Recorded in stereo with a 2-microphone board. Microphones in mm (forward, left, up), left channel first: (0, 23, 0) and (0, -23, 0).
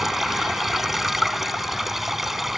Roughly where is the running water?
Centre.